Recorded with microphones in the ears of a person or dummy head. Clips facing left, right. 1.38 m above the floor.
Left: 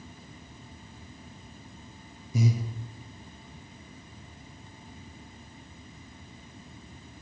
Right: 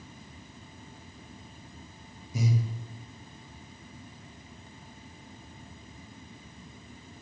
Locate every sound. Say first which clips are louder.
2.3 s breathing: left 2 dB; 80° left, 1.2 m